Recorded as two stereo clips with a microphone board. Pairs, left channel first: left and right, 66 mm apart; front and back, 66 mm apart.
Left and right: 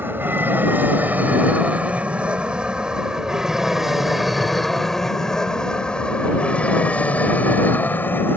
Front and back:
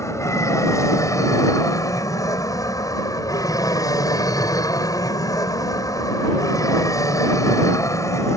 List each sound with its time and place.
0.0 s an aircraft: 35° right; by 8.4 s 35° left